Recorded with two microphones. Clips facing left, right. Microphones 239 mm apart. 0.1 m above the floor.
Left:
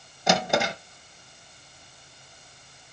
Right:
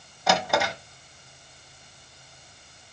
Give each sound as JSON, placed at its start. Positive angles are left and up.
{"t": 0.3, "sound": "a drawer", "side_deg": 20, "distance_m": 1.5}